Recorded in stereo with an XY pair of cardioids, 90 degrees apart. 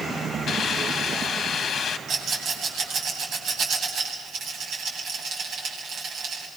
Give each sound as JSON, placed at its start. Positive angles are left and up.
{"t": 0.5, "sound": "a hiss", "azimuth_deg": 65, "distance_m": 1.9}
{"t": 2.1, "sound": "a rattle", "azimuth_deg": -70, "distance_m": 10.0}